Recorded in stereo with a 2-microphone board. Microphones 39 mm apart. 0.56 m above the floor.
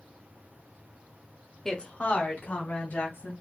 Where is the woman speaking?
10° left (ahead or behind), 0.9 m; by 3.3 s 65° left (ahead or behind), 3 m.